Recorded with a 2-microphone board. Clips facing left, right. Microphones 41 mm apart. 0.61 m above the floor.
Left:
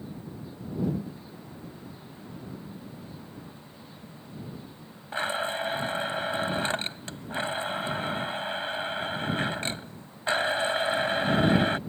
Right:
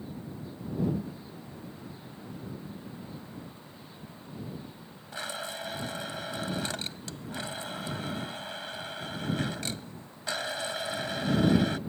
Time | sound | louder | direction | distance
5.1 | a blender | left 8 dB | 30° left (ahead or behind) | ?